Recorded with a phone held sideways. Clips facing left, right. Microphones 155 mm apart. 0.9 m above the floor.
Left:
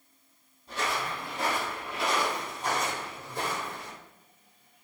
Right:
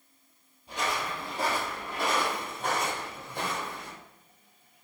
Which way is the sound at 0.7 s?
15° right (ahead or behind).